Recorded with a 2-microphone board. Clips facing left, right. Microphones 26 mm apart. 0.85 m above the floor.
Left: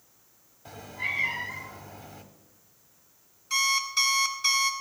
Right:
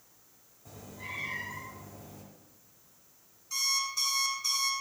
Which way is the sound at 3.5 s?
65° left (ahead or behind).